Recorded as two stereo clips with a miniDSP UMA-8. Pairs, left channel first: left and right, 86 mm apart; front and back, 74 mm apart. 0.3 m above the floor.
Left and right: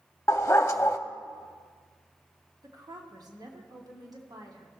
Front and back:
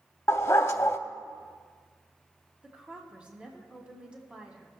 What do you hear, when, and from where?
0.3 s a dog barking: 40° left, 0.6 m
2.6 s a woman speaking: 110° right, 1.9 m